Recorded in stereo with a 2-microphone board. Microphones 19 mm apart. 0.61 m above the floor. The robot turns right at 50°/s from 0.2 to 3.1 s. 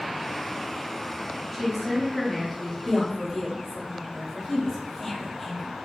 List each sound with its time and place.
1.5 s a woman speaking: 10° right (ahead or behind), 1.2 m; by 2.8 s 15° left (ahead or behind), 1.2 m
2.9 s a woman speaking: 20° left (ahead or behind), 1.3 m; by 5.7 s 30° left (ahead or behind), 1.3 m